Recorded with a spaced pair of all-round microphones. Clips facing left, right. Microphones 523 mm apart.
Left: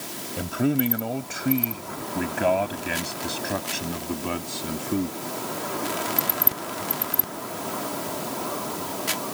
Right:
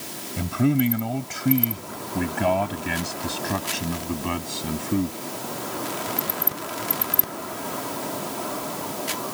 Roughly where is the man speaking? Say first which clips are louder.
Right 2 dB; right.